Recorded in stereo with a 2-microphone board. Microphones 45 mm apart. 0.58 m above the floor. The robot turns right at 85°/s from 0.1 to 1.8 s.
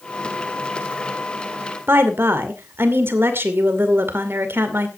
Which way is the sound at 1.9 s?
60° right (ahead or behind).